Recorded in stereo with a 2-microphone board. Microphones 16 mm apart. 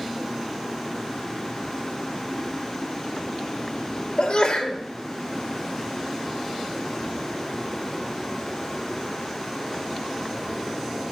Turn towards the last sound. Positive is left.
turn(degrees=55)  # may be behind; listen again after turning